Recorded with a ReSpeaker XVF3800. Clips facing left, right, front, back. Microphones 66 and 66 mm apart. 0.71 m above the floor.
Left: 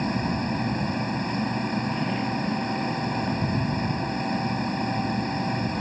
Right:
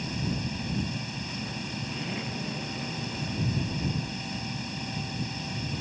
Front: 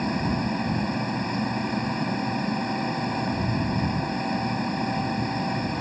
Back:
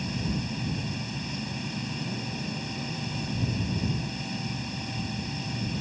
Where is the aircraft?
45° left.